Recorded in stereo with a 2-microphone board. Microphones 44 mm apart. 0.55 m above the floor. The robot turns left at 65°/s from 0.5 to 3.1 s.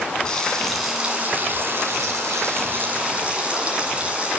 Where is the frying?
15° left, 7 m; by 4.4 s 155° right, 7 m.